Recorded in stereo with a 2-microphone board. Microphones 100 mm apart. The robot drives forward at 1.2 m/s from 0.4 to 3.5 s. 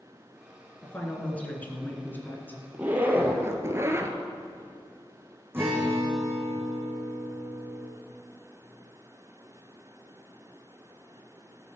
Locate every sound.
0.8 s a man speaking: 15° left (ahead or behind), 2.5 m; by 2.6 s 20° left (ahead or behind), 1.8 m
2.7 s a zipper: 15° right (ahead or behind), 2.0 m; by 4.2 s 30° right (ahead or behind), 1.2 m
5.5 s a guitar: 20° right (ahead or behind), 3.5 m